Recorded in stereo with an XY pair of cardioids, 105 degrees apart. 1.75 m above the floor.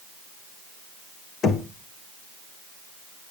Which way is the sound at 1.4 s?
55° left.